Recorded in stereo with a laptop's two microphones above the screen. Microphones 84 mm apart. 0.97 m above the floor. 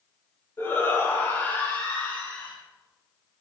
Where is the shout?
35° left (ahead or behind), 4.5 m; by 2.5 s 20° left (ahead or behind), 5 m.